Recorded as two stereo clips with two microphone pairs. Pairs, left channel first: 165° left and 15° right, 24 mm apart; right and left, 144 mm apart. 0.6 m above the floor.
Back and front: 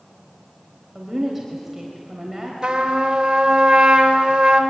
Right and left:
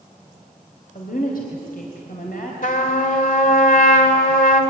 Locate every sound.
0.9 s a woman speaking: 100° right, 3.5 m
2.6 s a trumpet: 70° right, 2.5 m